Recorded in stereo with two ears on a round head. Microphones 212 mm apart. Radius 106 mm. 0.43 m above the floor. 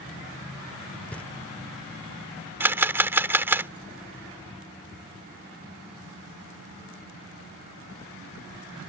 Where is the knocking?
5° left (ahead or behind).